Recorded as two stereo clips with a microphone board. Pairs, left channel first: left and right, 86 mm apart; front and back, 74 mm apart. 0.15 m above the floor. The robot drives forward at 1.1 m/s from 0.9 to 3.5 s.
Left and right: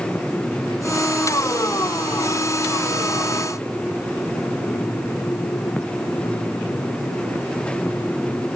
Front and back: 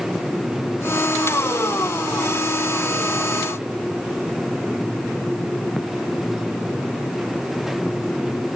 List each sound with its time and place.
Only background noise.